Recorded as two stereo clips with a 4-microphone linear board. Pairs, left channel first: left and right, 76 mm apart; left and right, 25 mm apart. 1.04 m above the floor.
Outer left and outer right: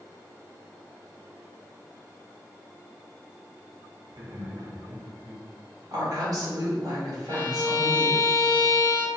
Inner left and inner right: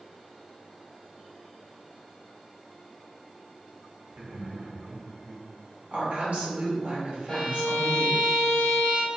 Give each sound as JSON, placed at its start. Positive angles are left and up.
{"t": 4.1, "sound": "laughter", "side_deg": -55, "distance_m": 0.9}
{"t": 5.9, "sound": "a woman speaking", "side_deg": -50, "distance_m": 1.7}
{"t": 7.3, "sound": "a violin", "side_deg": 30, "distance_m": 0.8}